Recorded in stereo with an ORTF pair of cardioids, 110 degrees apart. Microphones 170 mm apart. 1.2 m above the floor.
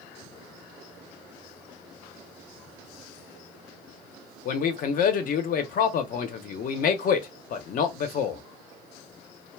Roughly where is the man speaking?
Ahead left.